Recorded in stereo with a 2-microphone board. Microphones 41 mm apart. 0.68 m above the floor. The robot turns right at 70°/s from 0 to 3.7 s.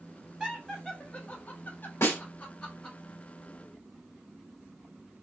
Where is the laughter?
15° right (ahead or behind), 0.8 m; by 3.0 s 15° left (ahead or behind), 0.8 m.